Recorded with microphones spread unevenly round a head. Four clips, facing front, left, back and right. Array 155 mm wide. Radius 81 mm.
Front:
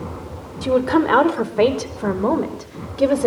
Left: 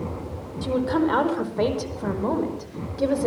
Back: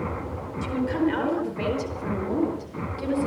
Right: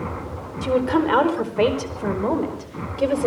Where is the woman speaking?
20° right, 4.5 m; by 3.3 s 10° right, 6 m.